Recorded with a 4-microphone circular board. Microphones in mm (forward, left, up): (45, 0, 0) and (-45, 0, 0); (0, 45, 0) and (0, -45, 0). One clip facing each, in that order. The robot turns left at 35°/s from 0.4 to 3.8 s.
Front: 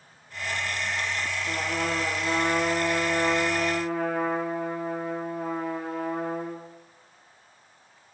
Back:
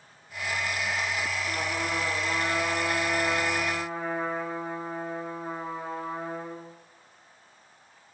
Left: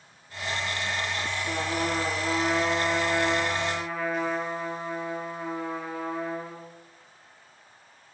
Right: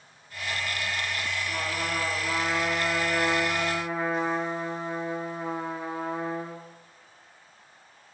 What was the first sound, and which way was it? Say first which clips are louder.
A trumpet: front 2 dB, left 5 dB; 60° left.